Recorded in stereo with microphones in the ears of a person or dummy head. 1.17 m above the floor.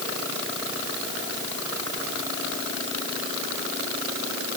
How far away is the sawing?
I don't hear sawing.